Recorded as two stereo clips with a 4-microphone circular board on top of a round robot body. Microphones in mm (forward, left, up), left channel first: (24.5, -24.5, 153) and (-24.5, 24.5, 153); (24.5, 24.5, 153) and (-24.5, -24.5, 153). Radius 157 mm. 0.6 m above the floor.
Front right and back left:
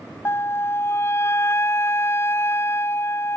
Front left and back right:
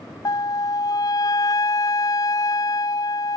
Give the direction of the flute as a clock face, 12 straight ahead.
12 o'clock.